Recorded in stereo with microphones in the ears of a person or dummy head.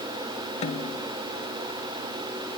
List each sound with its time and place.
0.6 s a snare drum: 35° left (ahead or behind)